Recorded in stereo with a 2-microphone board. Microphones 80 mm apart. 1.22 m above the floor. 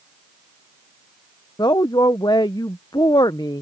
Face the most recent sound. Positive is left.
turn(degrees=60)  # may be behind; listen again after turning